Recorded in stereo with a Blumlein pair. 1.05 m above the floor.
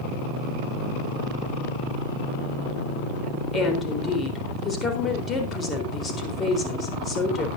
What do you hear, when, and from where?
3.5 s a woman speaking: 20° left, 4 m